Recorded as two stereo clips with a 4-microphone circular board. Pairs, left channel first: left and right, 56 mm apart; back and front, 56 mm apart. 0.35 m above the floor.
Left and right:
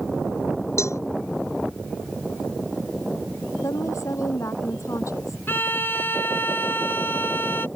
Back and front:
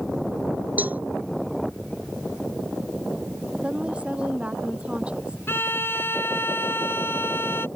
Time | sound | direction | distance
0.8 | a cowbell | 60° left | ?
3.6 | a woman speaking | 70° left | ?
5.5 | a violin | 135° left | ?